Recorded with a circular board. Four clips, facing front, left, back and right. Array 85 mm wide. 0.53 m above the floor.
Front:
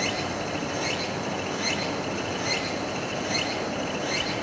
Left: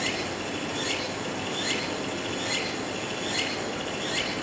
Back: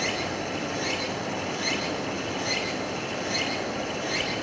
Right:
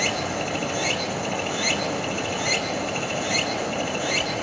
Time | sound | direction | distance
0.0 | running water | 80° right | 7 m